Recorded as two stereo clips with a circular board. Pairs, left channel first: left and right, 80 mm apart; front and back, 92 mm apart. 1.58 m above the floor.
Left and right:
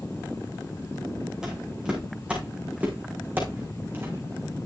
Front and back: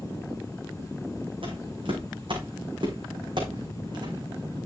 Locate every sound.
1.4 s footsteps: 170° right, 4.5 m; by 4.6 s 145° right, 4.5 m